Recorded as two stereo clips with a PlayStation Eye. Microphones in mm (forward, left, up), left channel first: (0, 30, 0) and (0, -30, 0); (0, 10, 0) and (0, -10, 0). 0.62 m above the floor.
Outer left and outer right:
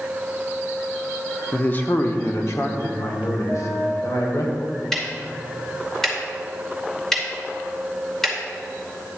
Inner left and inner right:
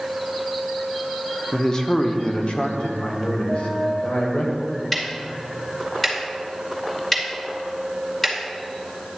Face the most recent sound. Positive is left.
turn(degrees=5)  # may be behind; listen again after turning